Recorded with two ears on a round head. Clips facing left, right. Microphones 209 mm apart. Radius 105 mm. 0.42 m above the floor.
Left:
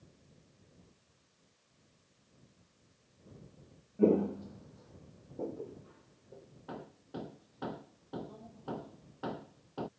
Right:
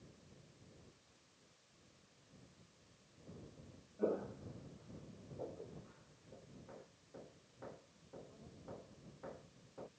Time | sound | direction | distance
4.0 | footsteps | 60° left (ahead or behind) | ?
6.7 | hammering | 80° left | ?